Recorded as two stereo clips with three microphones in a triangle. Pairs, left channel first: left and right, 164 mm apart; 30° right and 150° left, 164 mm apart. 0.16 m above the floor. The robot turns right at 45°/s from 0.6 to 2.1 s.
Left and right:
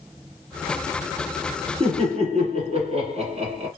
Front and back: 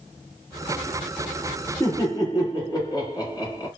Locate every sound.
1.8 s laughter: 95° right, 1.5 m; by 3.7 s 80° right, 1.5 m